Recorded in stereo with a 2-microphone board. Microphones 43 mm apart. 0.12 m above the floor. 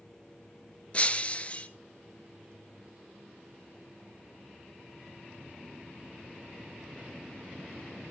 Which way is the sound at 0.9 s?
30° left (ahead or behind).